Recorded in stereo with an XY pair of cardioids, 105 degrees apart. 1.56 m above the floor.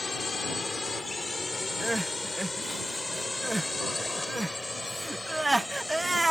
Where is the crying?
10° right.